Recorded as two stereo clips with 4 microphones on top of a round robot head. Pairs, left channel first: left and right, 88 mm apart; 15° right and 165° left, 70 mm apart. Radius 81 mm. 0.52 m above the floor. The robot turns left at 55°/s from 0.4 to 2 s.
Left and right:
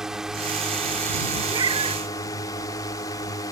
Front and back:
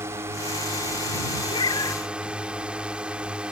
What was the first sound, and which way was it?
A drone, 170° right.